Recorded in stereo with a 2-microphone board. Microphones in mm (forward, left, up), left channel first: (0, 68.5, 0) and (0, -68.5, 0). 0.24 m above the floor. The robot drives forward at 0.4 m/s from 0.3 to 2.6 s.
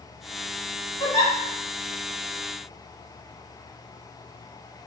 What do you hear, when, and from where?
1.0 s a giggle: 35° left (ahead or behind), 1.0 m; by 1.3 s 30° left (ahead or behind), 1.1 m